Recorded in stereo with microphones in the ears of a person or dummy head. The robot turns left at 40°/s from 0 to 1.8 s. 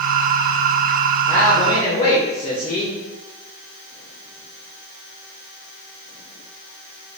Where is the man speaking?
5° left (ahead or behind), 0.5 m; by 3.0 s 25° left (ahead or behind), 0.5 m.